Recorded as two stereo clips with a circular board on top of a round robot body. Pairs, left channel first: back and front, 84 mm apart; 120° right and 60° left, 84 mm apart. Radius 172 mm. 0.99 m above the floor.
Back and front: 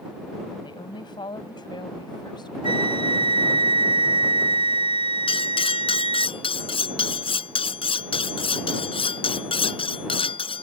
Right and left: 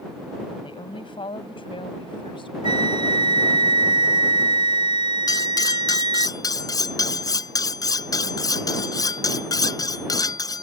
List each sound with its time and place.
0.6 s a woman speaking: 145° right; by 3.6 s 140° right
2.6 s a flute: 25° left
5.3 s cutlery clinking: 165° right